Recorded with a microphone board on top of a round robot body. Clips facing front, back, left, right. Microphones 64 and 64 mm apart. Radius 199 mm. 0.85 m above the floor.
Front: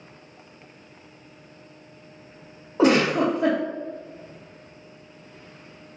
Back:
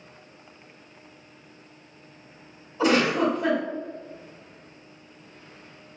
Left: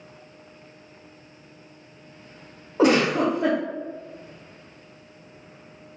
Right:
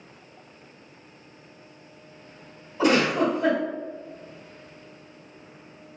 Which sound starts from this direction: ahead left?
A giggle, at 2.8 s.